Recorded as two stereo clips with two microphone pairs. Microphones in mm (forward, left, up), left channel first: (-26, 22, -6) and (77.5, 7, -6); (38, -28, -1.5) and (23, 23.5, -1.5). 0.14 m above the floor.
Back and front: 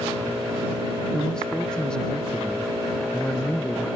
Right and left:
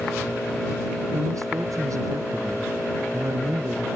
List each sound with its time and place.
1.1 s a man speaking: 90° left